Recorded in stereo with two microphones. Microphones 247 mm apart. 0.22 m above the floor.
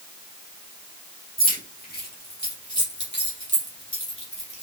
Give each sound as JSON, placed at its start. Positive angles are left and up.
{"t": 1.4, "sound": "keys jangling", "side_deg": 35, "distance_m": 4.5}